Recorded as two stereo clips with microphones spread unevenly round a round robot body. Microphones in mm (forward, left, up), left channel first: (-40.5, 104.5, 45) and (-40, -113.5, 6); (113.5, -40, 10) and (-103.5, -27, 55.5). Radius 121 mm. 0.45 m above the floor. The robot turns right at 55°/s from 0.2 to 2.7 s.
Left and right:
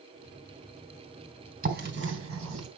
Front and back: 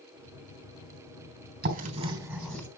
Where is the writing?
135° right, 4 m; by 2.7 s 80° right, 4 m.